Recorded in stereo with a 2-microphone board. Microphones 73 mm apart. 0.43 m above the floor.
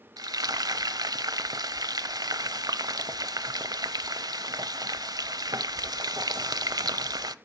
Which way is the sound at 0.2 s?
70° right (ahead or behind).